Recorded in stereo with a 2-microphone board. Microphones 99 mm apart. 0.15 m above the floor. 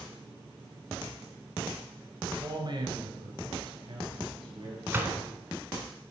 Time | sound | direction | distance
2.2 | a man speaking | 45° right (ahead or behind) | 1.5 m
4.9 | a gunshot | 20° right (ahead or behind) | 1.2 m